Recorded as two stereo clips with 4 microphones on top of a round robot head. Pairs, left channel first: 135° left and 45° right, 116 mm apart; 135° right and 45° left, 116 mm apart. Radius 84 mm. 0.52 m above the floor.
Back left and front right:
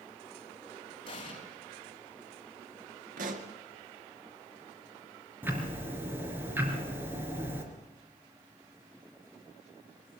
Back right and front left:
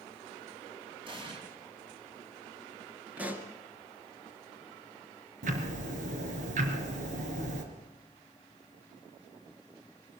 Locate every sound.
1.1 s an explosion: 90° left, 4 m
3.2 s a pop: 35° right, 1.9 m
5.4 s ticking: 30° left, 3 m